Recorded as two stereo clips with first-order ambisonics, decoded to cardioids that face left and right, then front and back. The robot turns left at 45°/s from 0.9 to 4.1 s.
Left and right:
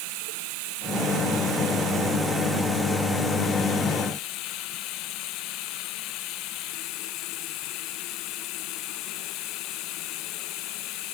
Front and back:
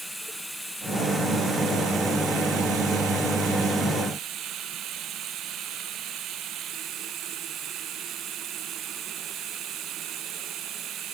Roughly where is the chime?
No chime in this recording.